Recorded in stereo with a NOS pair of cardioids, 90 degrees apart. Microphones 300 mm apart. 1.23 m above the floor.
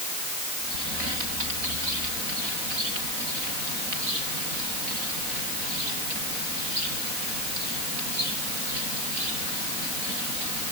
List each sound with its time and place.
Only background noise.